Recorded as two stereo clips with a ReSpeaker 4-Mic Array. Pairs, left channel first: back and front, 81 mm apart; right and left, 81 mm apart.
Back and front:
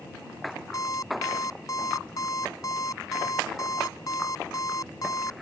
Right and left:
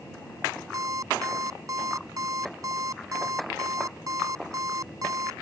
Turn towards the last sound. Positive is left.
turn(degrees=135)